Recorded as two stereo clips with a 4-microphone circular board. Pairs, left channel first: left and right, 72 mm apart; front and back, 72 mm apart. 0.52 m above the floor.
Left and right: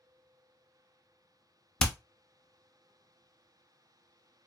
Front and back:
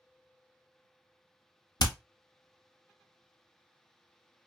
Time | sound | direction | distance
1.8 | hammering | 10° left | 0.5 m